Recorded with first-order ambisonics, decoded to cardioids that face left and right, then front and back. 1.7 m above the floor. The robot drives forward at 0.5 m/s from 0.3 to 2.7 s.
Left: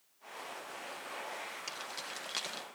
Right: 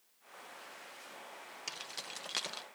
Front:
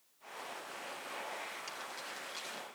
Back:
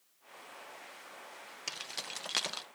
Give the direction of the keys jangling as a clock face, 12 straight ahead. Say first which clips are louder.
Left 2 dB, back 3 dB; 6 o'clock.